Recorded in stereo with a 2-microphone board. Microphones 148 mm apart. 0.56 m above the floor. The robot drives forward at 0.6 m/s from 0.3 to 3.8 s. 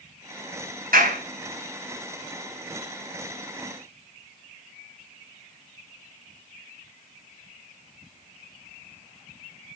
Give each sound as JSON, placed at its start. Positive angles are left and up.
{"t": 0.9, "sound": "a clap", "side_deg": -70, "distance_m": 3.5}